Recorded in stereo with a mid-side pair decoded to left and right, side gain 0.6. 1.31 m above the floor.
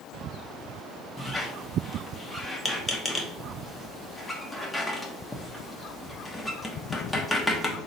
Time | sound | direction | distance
1.2 | a squeak | 10° left | 1.0 m